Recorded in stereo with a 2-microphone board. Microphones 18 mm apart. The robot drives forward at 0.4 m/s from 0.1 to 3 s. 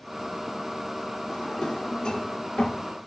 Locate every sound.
1.3 s a drawer: 70° left (ahead or behind), 1.2 m